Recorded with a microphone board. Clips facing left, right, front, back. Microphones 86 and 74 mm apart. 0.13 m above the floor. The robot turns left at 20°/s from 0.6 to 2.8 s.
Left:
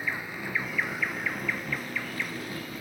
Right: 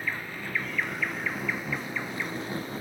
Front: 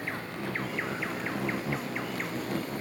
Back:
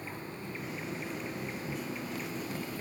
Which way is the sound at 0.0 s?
10° left.